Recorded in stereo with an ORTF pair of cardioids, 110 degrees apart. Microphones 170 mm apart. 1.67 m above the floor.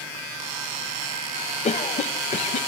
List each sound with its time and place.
1.6 s a cough: 45° left, 1.7 m